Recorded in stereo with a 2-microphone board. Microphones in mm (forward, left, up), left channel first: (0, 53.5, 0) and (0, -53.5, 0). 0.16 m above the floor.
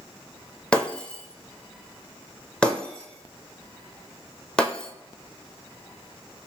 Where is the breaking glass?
10° left (ahead or behind), 0.8 m.